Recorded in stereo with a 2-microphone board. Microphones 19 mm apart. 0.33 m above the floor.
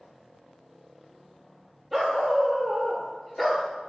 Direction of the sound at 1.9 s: 10° right (ahead or behind).